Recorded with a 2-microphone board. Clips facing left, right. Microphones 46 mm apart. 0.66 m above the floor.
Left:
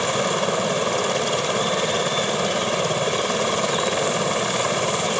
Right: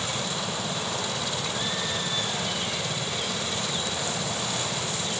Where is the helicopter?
50° left (ahead or behind).